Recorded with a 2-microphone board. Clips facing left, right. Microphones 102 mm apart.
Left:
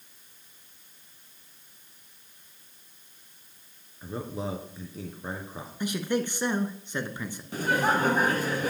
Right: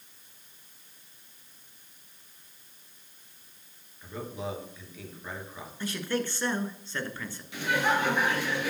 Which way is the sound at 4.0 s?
35° left (ahead or behind).